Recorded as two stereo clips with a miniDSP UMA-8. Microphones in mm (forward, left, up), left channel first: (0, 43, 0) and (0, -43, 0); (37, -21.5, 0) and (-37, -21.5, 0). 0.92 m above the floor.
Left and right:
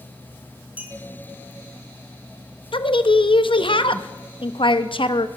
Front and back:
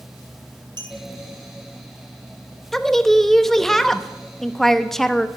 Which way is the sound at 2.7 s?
85° left.